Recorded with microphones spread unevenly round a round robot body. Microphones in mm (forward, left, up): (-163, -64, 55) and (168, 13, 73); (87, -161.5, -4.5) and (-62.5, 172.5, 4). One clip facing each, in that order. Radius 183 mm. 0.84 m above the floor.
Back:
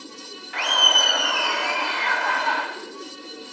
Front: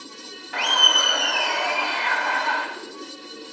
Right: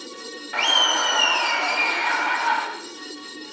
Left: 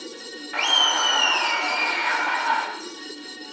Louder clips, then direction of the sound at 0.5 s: Even, right 2 dB; 25° right.